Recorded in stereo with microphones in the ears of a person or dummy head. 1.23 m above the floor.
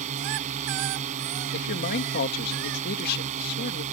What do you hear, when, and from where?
0.0 s a drone: 40° right (ahead or behind)
1.5 s a man speaking: 50° left (ahead or behind)